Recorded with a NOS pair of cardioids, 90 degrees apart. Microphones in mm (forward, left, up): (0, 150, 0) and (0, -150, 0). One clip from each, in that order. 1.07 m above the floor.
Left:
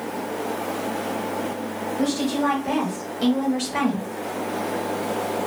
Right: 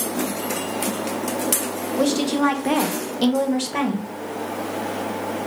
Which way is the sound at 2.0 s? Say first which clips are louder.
Right 4 dB; 70° right.